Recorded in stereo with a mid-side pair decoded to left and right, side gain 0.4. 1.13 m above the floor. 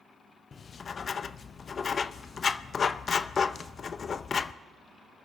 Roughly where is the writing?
Ahead left.